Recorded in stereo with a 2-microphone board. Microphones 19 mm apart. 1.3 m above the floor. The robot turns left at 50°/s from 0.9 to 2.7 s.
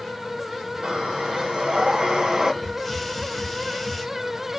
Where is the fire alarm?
I don't hear a fire alarm.